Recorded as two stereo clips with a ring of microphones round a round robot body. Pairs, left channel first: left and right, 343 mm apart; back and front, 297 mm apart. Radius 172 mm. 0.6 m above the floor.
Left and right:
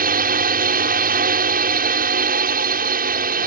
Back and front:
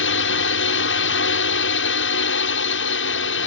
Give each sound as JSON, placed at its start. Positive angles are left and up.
{"t": 0.0, "sound": "a drone", "azimuth_deg": -145}